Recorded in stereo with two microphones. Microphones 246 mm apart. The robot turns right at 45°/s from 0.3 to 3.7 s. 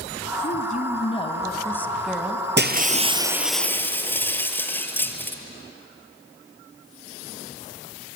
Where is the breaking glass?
45° right, 1.6 m; by 5.4 s 10° left, 1.6 m.